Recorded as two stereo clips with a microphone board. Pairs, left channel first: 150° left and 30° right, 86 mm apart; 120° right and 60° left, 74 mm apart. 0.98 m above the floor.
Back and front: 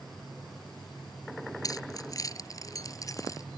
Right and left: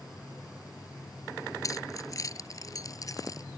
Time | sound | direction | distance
1.6 | keys jangling | 165° right | ?